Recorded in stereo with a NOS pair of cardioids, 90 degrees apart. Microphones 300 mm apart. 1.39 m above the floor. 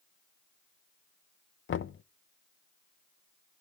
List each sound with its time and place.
1.7 s knocking: 45° left, 0.8 m